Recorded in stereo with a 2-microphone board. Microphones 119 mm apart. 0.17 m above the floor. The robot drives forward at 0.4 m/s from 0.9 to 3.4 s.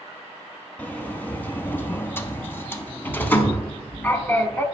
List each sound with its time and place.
0.8 s a sliding door: 15° left (ahead or behind), 0.8 m